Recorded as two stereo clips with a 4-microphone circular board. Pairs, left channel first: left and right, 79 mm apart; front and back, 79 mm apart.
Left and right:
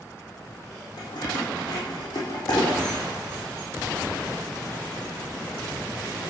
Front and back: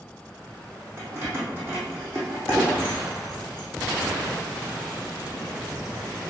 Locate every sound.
1.0 s keys jangling: 120° left, 5.5 m